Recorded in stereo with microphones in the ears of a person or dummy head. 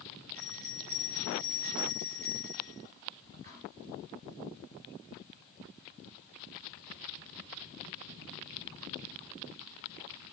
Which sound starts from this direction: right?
A bell, at 0.3 s.